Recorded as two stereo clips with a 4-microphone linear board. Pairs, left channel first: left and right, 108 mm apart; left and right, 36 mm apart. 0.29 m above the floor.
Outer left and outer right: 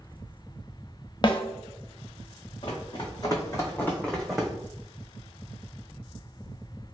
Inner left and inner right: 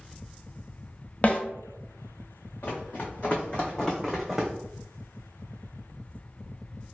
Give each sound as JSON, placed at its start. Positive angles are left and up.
{"t": 1.2, "sound": "a snare drum", "side_deg": 40, "distance_m": 0.6}
{"t": 2.6, "sound": "running footsteps", "side_deg": 55, "distance_m": 1.1}